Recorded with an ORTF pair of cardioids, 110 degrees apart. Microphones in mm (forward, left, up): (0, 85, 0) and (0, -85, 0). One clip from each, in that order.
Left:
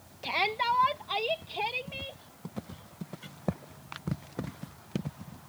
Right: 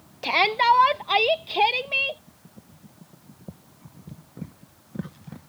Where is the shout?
45° right; by 2.2 s 65° right.